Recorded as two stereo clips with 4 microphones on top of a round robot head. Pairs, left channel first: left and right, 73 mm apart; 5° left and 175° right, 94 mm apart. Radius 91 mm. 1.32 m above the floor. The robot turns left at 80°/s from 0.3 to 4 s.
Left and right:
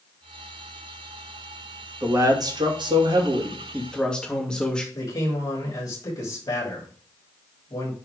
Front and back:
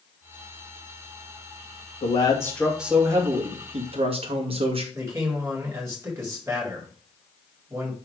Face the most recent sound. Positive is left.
turn(degrees=120)